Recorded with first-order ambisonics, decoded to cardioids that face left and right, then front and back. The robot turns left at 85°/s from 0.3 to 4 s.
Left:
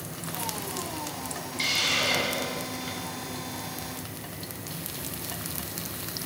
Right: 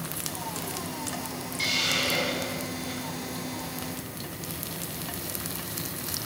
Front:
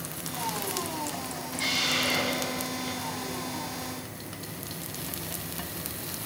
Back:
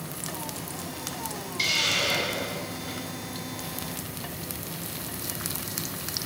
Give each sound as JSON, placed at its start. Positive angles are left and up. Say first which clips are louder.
{"t": 1.6, "sound": "a hiss", "louder": "left 1 dB, back 2 dB", "azimuth_deg": 180, "distance_m": 1.5}